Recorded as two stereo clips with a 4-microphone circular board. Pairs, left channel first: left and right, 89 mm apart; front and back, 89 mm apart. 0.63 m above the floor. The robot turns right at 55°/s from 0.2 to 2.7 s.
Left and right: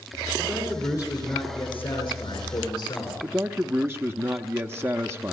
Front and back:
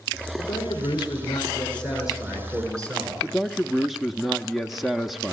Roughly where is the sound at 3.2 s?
Right.